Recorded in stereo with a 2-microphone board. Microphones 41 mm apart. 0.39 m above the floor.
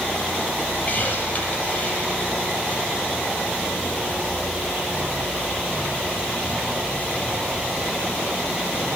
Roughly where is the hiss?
Left.